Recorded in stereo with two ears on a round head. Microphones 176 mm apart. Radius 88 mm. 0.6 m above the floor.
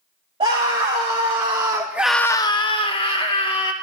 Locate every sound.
0.4 s a scream: 25° right (ahead or behind), 2.5 m; by 3.7 s 30° left (ahead or behind), 2.5 m